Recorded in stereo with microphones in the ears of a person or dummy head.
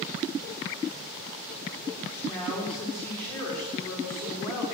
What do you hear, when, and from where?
2.2 s a woman speaking: 5° left (ahead or behind), 4 m